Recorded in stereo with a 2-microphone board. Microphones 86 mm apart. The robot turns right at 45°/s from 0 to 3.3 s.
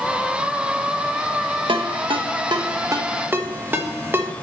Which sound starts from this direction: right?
A ringtone, at 1.7 s.